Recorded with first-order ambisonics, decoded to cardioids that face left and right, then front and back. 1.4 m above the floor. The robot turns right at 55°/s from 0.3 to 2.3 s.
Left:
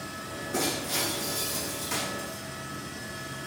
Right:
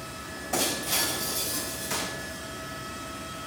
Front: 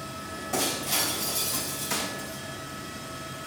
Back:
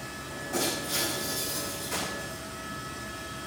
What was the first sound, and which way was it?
Breaking glass, 80° right.